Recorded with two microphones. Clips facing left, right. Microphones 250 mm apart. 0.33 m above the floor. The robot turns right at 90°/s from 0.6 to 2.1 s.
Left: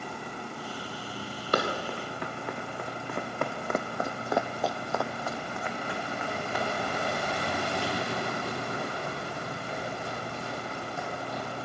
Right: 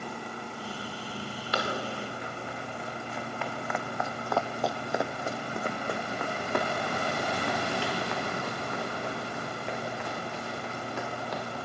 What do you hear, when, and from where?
1.5 s running footsteps: 50° left (ahead or behind), 3 m; by 11.6 s 80° right, 6 m